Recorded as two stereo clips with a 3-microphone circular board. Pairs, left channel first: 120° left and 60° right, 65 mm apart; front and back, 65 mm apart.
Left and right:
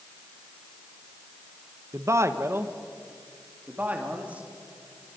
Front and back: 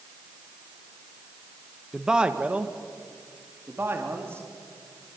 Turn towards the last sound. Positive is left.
turn(degrees=-125)